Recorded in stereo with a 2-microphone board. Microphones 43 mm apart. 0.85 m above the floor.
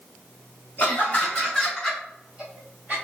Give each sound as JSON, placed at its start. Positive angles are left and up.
{"t": 0.8, "sound": "laughter", "side_deg": 40, "distance_m": 1.2}